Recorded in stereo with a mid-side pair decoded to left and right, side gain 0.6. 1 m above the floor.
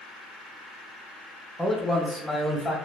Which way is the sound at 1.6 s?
10° left.